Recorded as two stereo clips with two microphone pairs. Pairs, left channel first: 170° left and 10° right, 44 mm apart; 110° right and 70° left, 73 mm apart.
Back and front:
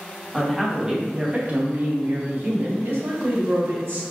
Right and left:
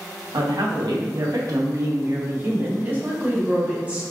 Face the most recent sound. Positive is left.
turn(degrees=-5)